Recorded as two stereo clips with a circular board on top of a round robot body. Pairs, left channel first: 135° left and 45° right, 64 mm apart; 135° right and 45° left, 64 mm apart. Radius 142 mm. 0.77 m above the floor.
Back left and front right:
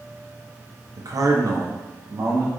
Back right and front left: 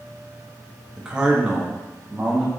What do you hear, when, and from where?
1.0 s a man speaking: 35° right, 0.7 m; by 2.5 s 15° right, 1.4 m